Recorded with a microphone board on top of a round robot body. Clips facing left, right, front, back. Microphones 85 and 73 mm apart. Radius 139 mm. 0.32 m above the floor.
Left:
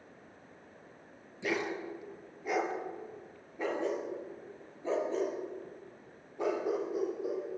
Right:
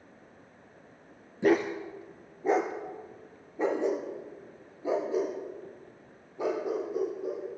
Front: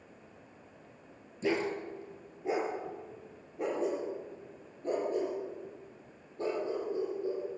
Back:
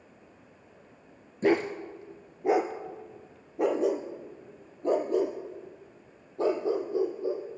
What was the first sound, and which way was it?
A dog barking, 140° right.